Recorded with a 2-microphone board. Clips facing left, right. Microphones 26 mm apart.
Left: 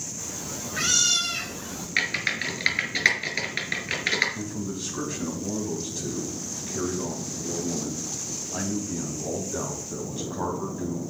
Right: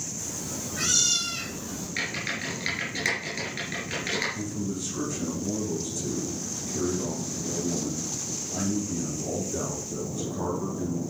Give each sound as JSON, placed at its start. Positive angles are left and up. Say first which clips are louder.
{"t": 0.2, "sound": "a cat meowing", "louder": "even", "side_deg": 25, "distance_m": 2.5}
{"t": 2.0, "sound": "typing on a keyboard", "louder": "left 6 dB", "side_deg": 40, "distance_m": 2.0}
{"t": 4.3, "sound": "a man speaking", "louder": "right 1 dB", "side_deg": 35, "distance_m": 2.5}